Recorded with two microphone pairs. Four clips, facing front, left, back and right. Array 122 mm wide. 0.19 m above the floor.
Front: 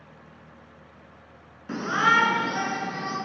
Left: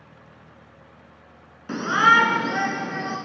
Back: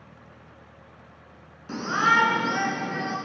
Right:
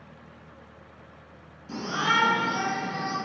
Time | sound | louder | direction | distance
1.7 | a shout | left 9 dB, even | 75° left | 2 m